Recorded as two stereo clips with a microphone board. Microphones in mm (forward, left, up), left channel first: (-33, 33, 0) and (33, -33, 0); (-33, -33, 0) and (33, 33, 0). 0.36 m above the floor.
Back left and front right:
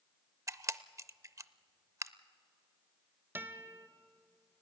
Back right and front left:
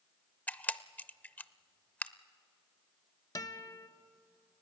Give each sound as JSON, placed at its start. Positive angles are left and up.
{"t": 0.5, "sound": "a camera shutter", "azimuth_deg": -70, "distance_m": 0.5}
{"t": 3.4, "sound": "a guitar", "azimuth_deg": -105, "distance_m": 1.0}